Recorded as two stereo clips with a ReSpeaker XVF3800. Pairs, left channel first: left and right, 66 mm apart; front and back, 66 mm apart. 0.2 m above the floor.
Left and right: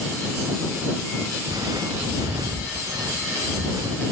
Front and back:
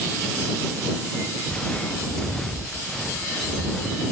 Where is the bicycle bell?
I don't hear a bicycle bell.